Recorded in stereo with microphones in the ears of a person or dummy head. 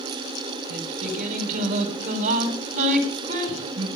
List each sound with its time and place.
0.7 s singing: 45° right (ahead or behind), 5 m